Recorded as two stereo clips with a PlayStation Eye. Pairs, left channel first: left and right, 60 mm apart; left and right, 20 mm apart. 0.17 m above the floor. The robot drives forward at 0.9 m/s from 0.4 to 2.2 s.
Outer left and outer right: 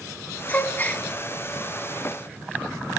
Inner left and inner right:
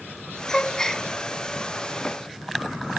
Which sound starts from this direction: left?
A gasp, at 0.5 s.